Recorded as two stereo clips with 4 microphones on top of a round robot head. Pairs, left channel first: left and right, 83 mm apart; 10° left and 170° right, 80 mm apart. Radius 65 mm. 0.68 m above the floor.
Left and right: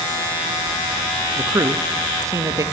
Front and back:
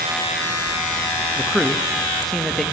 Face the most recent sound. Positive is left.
turn(degrees=-80)